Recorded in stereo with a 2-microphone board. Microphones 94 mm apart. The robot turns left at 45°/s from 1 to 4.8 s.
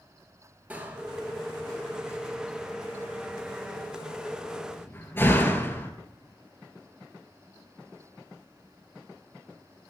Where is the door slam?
15° right (ahead or behind), 1.9 m; by 5.9 s 25° left (ahead or behind), 1.9 m.